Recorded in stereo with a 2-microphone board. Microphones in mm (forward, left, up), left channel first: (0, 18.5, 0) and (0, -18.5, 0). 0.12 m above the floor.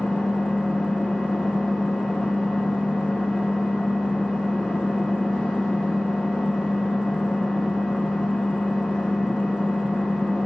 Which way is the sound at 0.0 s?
45° left (ahead or behind).